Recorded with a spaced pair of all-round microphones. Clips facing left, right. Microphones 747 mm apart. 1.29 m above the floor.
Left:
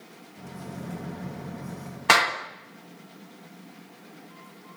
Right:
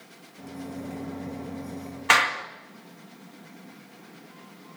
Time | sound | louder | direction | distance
0.4 | a microwave | right 4 dB | 45° left (ahead or behind) | 1.3 m
2.1 | a clap | left 4 dB | 65° left (ahead or behind) | 2 m